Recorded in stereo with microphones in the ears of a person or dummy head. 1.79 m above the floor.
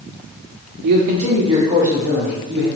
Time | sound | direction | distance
0.8 | a man speaking | 55° right (ahead or behind) | 0.8 m